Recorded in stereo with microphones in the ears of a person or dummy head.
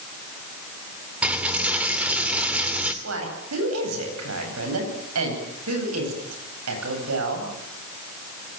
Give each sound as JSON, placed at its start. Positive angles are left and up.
{"t": 1.2, "sound": "a dropped coin", "side_deg": -5, "distance_m": 2.5}
{"t": 3.0, "sound": "a woman speaking", "side_deg": -85, "distance_m": 9.5}